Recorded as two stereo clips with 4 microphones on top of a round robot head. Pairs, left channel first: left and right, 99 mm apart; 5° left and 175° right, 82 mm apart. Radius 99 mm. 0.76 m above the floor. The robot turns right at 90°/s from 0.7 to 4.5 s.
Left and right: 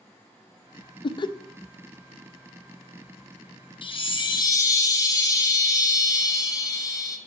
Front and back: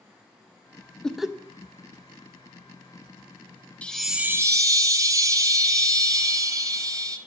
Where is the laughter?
80° left, 0.5 m; by 1.3 s 110° left, 0.5 m.